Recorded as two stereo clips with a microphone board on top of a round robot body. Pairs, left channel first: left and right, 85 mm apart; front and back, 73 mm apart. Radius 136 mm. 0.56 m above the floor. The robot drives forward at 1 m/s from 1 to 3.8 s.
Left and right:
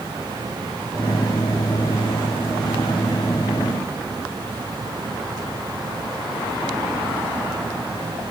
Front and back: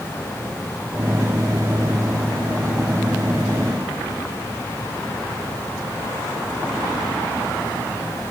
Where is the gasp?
No gasp in this recording.